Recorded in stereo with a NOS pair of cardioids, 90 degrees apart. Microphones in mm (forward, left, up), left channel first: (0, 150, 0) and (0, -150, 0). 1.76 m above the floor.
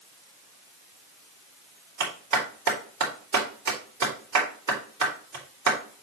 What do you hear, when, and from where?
2.0 s a clap: 60° right, 3.5 m